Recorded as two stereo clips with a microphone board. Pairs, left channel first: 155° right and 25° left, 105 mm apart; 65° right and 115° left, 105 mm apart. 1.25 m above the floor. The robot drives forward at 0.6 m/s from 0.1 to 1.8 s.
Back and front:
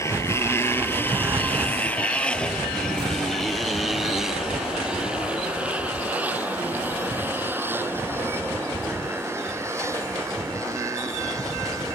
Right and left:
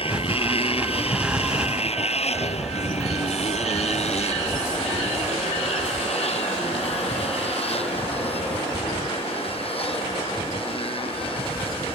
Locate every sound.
0.0 s a motorcycle: 95° right; by 11.9 s 35° right